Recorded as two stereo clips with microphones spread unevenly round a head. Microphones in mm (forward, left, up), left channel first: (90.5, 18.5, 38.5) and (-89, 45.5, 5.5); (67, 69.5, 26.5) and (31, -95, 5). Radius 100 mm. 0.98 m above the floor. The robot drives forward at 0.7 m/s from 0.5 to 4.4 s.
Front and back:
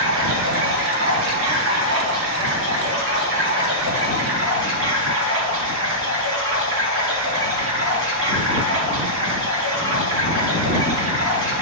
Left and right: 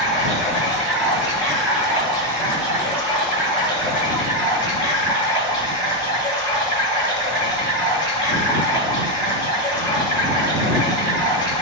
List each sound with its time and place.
0.0 s running water: 170° left, 5 m; by 11.6 s 175° left, 8 m